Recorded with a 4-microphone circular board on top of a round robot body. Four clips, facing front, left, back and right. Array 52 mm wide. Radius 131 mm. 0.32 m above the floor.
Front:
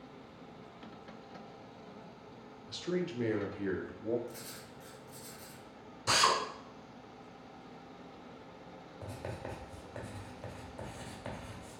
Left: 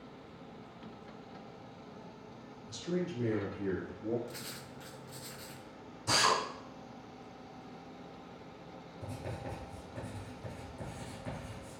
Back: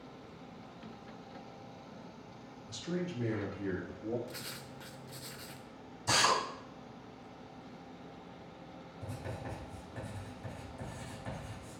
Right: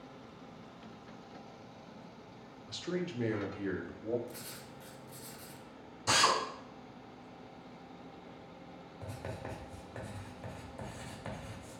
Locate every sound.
2.7 s a man speaking: 55° right, 0.9 m; by 4.2 s 30° right, 1.7 m
4.3 s writing: 160° left, 0.7 m
6.1 s a drill: 35° right, 2.5 m
9.0 s writing: 45° right, 2 m